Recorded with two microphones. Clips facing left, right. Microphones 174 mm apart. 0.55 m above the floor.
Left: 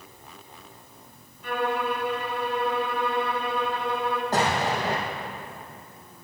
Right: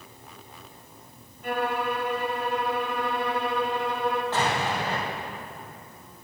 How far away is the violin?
About 2.5 m.